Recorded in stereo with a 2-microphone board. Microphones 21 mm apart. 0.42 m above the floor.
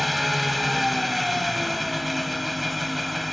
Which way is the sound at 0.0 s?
5° right (ahead or behind).